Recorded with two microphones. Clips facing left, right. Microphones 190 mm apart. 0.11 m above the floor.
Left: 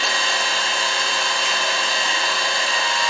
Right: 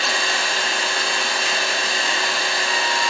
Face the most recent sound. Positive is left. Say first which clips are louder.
# even
turn(degrees=-60)  # may be behind; listen again after turning